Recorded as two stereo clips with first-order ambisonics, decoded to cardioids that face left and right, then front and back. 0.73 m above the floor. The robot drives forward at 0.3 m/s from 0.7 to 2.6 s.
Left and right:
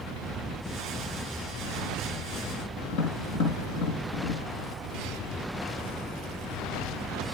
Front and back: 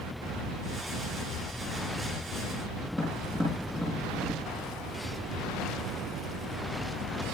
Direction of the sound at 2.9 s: 100° left.